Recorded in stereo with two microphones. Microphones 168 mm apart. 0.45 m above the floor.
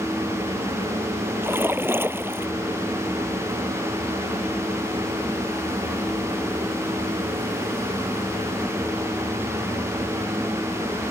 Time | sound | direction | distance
1.4 | a splash | 15° right (ahead or behind) | ?